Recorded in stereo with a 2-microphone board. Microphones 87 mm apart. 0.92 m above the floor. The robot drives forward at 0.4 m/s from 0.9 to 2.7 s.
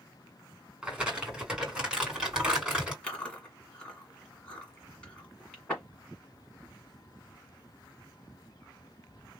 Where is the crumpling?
10° right (ahead or behind), 2.0 m.